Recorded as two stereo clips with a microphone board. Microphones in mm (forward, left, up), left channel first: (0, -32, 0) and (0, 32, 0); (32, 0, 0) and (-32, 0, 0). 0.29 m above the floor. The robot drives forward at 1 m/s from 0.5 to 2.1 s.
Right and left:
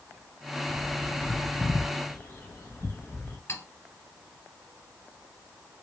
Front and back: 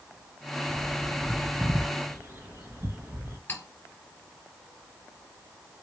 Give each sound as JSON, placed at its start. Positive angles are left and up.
{"t": 0.7, "sound": "a bird", "azimuth_deg": -55, "distance_m": 1.1}
{"t": 3.5, "sound": "cutlery clinking", "azimuth_deg": -55, "distance_m": 2.0}